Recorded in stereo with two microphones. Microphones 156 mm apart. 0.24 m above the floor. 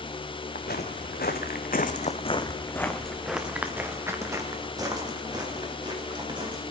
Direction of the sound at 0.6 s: 75° left (ahead or behind).